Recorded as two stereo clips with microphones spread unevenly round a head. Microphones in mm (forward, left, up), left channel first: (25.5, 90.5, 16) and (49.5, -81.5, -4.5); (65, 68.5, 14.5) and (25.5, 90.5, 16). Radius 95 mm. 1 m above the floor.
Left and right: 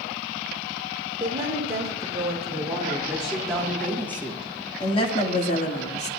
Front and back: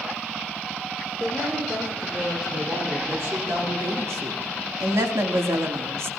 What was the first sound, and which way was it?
A woman speaking, 150° right.